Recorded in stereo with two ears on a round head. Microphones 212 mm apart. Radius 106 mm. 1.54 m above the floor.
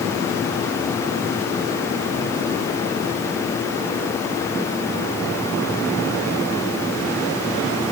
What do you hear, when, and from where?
Only background noise.